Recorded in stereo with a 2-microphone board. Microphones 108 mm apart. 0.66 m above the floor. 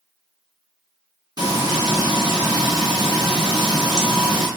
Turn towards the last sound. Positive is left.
turn(degrees=-40)  # may be behind; listen again after turning